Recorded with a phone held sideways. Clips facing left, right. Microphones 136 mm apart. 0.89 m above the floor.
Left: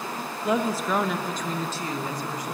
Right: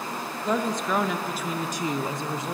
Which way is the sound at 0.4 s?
5° left (ahead or behind).